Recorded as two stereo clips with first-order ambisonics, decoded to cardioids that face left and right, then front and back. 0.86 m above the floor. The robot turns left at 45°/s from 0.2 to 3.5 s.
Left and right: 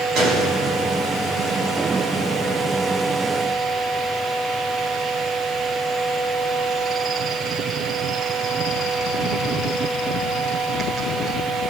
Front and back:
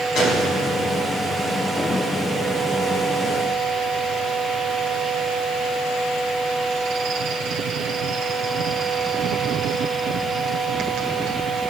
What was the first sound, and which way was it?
A gunshot, 50° right.